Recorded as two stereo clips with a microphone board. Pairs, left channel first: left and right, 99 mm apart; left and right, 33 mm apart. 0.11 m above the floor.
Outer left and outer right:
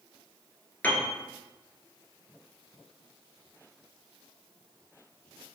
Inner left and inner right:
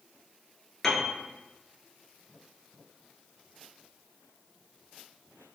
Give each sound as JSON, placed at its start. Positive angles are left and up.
{"t": 0.8, "sound": "a piano", "side_deg": 15, "distance_m": 0.7}